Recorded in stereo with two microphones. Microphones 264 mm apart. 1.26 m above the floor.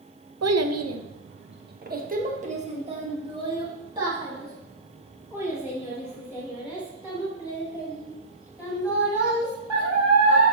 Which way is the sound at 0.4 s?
80° right.